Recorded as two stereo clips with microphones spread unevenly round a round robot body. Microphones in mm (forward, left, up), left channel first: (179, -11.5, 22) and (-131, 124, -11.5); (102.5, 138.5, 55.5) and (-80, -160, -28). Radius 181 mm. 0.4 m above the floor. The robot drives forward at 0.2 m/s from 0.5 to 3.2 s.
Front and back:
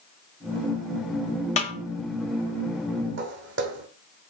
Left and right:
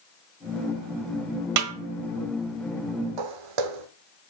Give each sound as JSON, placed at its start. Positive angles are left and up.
{"t": 1.6, "sound": "a snare drum", "azimuth_deg": -100, "distance_m": 1.0}
{"t": 3.2, "sound": "footsteps", "azimuth_deg": -140, "distance_m": 1.2}